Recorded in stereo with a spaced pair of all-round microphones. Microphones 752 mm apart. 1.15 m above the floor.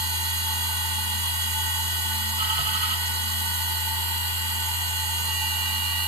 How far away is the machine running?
About 1.3 m.